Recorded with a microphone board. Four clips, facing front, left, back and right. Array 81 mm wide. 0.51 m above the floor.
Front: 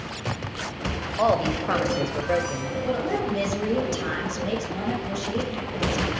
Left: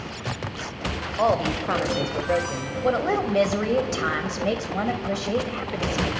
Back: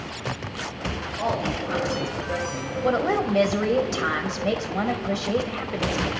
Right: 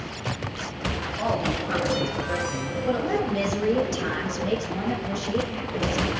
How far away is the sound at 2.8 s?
About 1.9 m.